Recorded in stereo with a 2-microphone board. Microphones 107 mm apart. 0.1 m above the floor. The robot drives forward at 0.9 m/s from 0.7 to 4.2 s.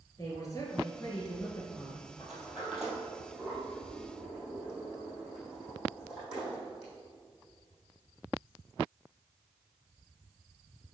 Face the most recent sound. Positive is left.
turn(degrees=-5)  # may be behind; listen again after turning